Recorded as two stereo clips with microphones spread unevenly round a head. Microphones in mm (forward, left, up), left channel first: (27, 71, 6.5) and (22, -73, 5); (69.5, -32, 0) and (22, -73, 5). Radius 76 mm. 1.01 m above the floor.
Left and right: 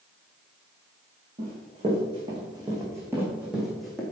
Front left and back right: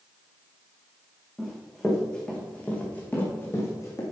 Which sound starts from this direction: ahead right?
Running footsteps, at 1.4 s.